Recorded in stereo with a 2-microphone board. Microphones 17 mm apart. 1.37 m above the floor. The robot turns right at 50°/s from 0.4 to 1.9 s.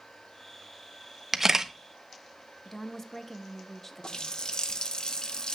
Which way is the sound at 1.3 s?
20° right (ahead or behind).